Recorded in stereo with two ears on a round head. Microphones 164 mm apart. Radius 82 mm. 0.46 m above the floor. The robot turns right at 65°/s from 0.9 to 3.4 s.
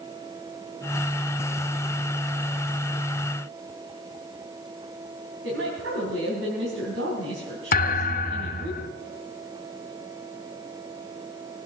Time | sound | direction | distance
5.4 | a woman speaking | 75° right (ahead or behind) | 3.5 m
7.7 | a thud | 50° left (ahead or behind) | 0.9 m